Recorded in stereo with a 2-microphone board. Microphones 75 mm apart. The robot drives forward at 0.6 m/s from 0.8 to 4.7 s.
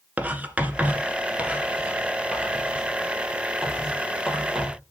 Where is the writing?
20° right (ahead or behind), 1.4 m; by 4.8 s 5° right (ahead or behind), 3.5 m.